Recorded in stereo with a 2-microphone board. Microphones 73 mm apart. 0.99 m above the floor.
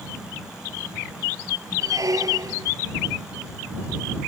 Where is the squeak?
55° right (ahead or behind).